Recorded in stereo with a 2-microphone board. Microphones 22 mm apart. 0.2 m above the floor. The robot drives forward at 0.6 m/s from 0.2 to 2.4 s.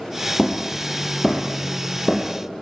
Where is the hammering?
5° left (ahead or behind), 5.5 m.